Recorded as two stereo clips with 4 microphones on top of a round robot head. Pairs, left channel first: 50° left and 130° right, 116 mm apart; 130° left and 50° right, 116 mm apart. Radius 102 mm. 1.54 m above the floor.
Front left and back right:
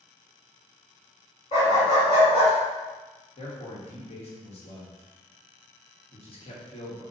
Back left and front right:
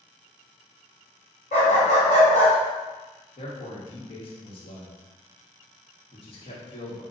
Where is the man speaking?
90° left, 1.4 m.